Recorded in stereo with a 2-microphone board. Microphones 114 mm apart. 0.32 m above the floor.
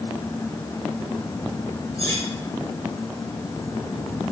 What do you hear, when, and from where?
2.0 s cutlery clinking: 25° left (ahead or behind), 3.5 m